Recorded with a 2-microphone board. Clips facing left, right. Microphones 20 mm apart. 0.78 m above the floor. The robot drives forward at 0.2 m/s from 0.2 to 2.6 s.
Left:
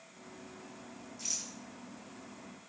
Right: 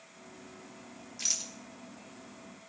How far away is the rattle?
About 0.8 m.